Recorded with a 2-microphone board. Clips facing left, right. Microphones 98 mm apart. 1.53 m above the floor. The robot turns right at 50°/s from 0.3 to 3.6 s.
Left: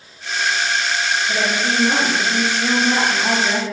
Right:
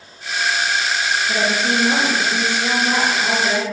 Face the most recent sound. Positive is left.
turn(degrees=105)